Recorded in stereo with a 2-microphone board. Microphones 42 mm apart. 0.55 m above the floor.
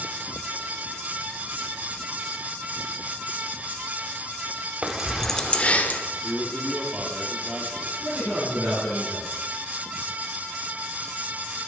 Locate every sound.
4.8 s keys jangling: 25° right (ahead or behind), 0.8 m; by 6.0 s 45° left (ahead or behind), 1.2 m
6.2 s a man speaking: 25° right (ahead or behind), 1.4 m
8.0 s a man speaking: 55° right (ahead or behind), 5 m